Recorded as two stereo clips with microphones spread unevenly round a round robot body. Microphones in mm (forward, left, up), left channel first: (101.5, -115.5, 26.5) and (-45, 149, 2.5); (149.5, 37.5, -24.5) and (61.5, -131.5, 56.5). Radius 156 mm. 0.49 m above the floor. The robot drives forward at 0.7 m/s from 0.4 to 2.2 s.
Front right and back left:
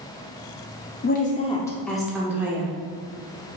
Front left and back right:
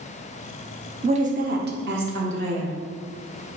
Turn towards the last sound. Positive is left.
turn(degrees=-165)